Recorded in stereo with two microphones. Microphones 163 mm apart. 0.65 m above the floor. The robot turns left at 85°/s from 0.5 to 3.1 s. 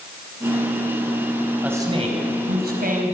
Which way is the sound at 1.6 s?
10° right.